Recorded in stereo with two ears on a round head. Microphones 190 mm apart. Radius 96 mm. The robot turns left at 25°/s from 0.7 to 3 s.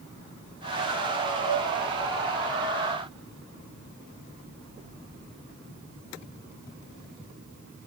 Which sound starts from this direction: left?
A flute, at 1.4 s.